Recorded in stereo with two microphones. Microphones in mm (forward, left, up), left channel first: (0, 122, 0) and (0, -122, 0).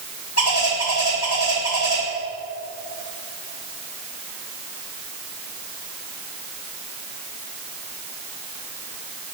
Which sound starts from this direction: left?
A bird, at 0.4 s.